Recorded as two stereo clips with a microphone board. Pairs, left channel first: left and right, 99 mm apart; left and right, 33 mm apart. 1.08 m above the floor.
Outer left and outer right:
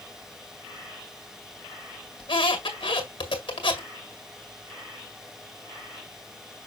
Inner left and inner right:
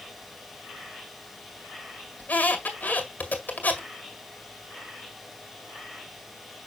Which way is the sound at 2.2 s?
55° left (ahead or behind).